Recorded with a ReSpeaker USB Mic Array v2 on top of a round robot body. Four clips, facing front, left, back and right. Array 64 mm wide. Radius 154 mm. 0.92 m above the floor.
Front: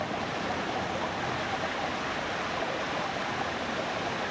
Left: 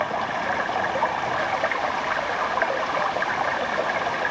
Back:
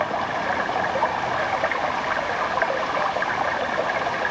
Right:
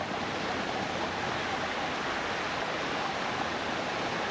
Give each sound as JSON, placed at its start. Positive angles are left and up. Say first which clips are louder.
{"t": 0.0, "sound": "running water", "louder": "left 8 dB, back 8 dB", "azimuth_deg": 145}